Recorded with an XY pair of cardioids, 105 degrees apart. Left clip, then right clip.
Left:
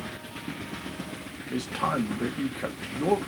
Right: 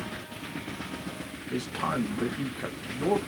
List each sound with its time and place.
1.5 s a man speaking: 10° left, 1.2 m